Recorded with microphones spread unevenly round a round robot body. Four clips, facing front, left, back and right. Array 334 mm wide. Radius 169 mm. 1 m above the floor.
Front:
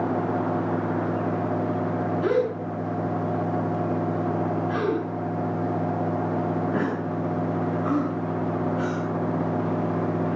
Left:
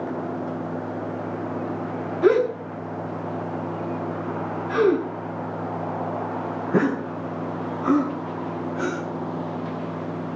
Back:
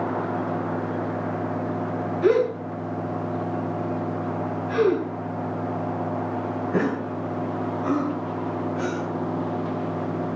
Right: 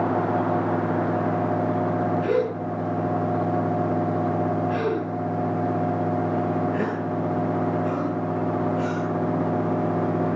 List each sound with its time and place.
2.2 s a gasp: 90° left, 8 m